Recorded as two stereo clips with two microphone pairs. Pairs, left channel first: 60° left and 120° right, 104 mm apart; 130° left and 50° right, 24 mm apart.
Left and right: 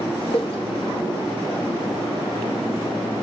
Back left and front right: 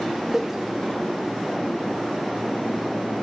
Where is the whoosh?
30° left, 1.0 m.